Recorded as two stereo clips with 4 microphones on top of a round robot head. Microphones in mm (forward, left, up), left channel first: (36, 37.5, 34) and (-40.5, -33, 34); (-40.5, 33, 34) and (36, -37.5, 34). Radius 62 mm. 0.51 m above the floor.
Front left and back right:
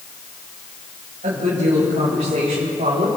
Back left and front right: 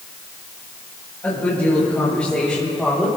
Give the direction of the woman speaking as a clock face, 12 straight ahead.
5 o'clock.